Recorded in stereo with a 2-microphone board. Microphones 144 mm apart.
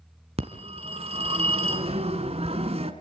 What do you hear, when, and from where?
0.4 s a phone ringing: 45° right (ahead or behind), 2 m